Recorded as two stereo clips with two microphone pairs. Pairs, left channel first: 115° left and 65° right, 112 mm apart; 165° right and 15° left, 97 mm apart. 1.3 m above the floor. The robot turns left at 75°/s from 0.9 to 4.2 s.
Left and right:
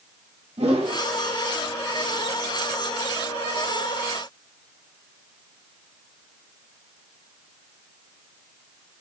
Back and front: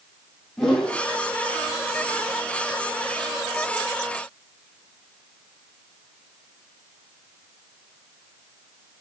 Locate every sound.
0.6 s a whoosh: 80° right, 3 m